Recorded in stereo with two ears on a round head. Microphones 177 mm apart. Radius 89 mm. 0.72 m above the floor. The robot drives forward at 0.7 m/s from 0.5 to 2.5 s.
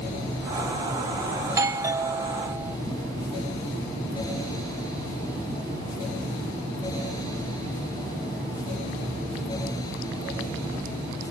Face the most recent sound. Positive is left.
turn(degrees=-15)  # may be behind; listen again after turning